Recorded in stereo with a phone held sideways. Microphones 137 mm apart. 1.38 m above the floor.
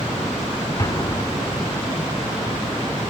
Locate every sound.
0.8 s an explosion: 30° left (ahead or behind), 1.4 m